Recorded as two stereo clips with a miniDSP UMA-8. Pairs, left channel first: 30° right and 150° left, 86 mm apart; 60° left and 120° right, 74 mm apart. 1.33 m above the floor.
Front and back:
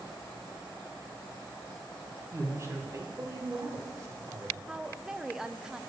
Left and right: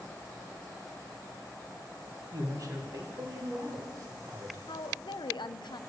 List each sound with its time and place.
2.3 s a man speaking: 155° right, 1.5 m
4.7 s a woman speaking: 65° left, 0.5 m